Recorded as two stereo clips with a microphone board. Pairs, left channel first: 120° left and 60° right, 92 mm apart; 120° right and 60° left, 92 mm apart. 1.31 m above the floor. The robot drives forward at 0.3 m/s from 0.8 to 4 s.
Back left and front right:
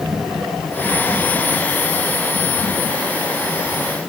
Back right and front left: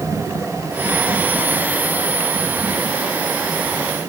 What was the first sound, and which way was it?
Only background noise.